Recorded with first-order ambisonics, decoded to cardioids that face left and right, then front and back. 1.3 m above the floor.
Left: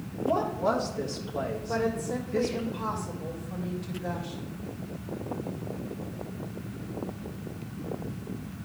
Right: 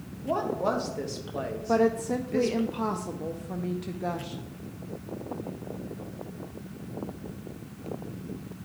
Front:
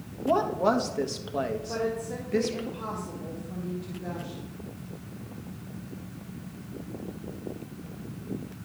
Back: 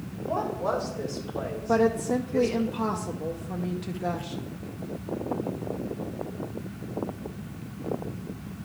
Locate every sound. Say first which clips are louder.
0.2 s a woman speaking: left 1 dB, front 4 dB; 20° right, 1.3 m
1.7 s a woman speaking: right 7 dB, back 7 dB; 130° right, 0.6 m